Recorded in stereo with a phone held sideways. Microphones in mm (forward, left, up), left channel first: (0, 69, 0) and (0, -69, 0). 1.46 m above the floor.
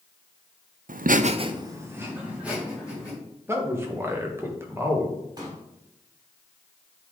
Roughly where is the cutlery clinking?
I don't hear cutlery clinking.